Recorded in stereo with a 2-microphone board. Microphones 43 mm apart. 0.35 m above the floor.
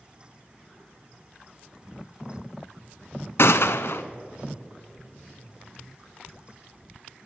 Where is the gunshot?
70° left (ahead or behind), 0.5 m.